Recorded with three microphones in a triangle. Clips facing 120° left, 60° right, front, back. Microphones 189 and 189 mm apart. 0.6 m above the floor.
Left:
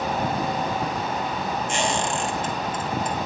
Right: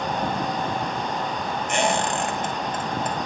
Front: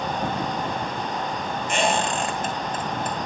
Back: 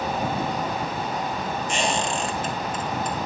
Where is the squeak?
30° right, 2.5 m.